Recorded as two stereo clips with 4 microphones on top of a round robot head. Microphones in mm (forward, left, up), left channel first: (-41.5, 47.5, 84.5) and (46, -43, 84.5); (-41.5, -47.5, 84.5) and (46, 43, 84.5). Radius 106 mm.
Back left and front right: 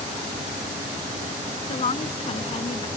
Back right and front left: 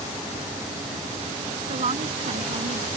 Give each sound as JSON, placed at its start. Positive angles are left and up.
{"t": 1.7, "sound": "a woman speaking", "azimuth_deg": 90}